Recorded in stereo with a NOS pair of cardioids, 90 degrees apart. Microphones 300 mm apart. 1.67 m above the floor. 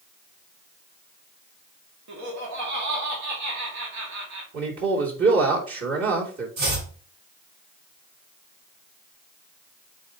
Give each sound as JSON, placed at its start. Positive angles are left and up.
{"t": 2.1, "sound": "laughter", "azimuth_deg": -70, "distance_m": 2.5}
{"t": 4.5, "sound": "a man speaking", "azimuth_deg": -45, "distance_m": 3.0}
{"t": 6.6, "sound": "chopping", "azimuth_deg": -70, "distance_m": 4.0}